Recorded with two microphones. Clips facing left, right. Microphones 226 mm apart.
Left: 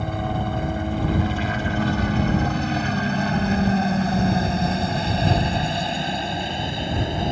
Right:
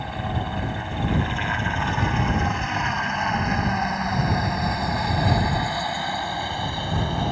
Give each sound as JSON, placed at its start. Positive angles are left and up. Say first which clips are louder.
{"t": 0.0, "sound": "a helicopter", "louder": "left 4 dB", "side_deg": 45}